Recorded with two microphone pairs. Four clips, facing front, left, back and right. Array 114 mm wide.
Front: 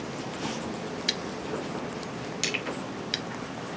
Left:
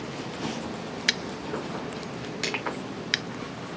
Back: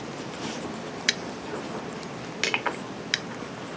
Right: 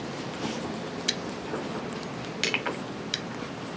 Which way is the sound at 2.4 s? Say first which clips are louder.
Right 1 dB, back 7 dB; straight behind.